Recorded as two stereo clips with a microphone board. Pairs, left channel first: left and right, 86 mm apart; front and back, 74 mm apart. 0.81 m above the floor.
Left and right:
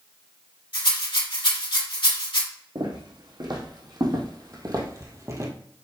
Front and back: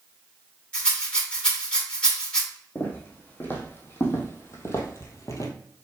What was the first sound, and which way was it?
A rattle, 75° left.